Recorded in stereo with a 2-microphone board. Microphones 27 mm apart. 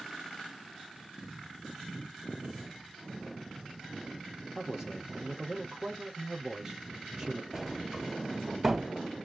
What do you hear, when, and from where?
4.5 s a man speaking: 20° right (ahead or behind), 4.5 m
7.5 s a sliding door: 15° right (ahead or behind), 1.8 m